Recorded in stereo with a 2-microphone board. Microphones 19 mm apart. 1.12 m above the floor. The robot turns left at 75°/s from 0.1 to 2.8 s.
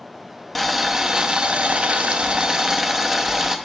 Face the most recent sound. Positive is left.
turn(degrees=-165)